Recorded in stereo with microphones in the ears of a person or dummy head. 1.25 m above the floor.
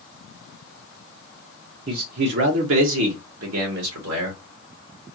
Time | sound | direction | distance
1.9 | a man speaking | 45° right (ahead or behind) | 0.8 m